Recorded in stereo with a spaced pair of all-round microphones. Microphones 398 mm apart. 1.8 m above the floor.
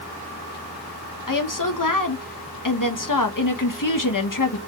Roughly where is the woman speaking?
Left.